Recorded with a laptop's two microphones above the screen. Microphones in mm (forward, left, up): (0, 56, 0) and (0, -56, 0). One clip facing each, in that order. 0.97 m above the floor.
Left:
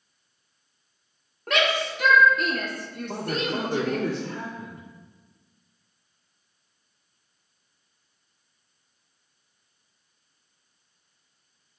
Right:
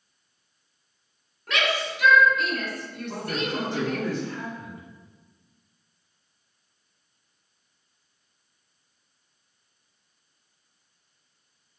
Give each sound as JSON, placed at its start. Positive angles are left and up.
{"t": 1.5, "sound": "a shout", "side_deg": 50, "distance_m": 1.9}
{"t": 3.1, "sound": "a man speaking", "side_deg": 75, "distance_m": 1.9}